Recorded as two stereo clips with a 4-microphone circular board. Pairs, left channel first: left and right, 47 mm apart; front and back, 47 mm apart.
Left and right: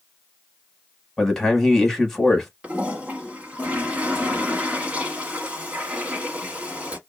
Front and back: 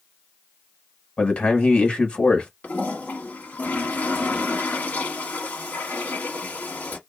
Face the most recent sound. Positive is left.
turn(degrees=-30)